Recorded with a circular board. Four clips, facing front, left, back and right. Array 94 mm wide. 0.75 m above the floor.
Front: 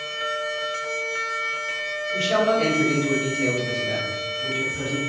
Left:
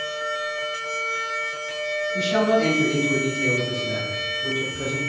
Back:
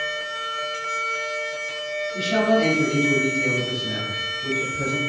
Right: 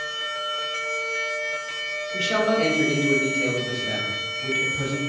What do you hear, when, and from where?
2.1 s a man speaking: 30° right, 3.5 m; by 5.0 s 55° right, 4.5 m